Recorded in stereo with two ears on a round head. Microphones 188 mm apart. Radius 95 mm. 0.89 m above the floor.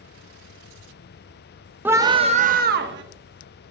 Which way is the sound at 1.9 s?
10° right (ahead or behind).